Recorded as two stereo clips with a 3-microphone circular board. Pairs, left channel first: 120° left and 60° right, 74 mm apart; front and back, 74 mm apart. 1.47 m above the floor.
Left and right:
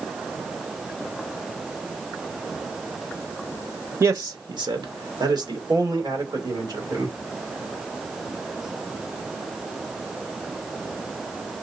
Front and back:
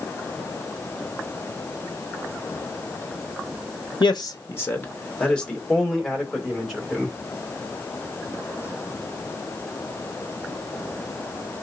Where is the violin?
No violin in this recording.